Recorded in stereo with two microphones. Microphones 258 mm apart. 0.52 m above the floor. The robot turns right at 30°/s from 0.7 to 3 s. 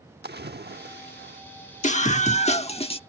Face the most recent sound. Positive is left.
turn(degrees=20)  # may be behind; listen again after turning